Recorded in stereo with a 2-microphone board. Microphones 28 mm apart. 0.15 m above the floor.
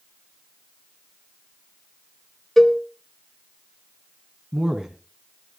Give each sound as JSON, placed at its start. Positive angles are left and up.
{"t": 2.6, "sound": "a cowbell", "side_deg": 5, "distance_m": 0.9}
{"t": 4.5, "sound": "a man speaking", "side_deg": -20, "distance_m": 1.1}